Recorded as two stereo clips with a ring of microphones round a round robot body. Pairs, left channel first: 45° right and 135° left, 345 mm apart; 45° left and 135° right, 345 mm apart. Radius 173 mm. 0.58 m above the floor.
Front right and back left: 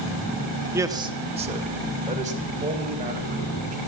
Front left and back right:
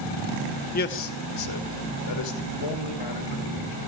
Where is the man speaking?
65° left, 0.9 m.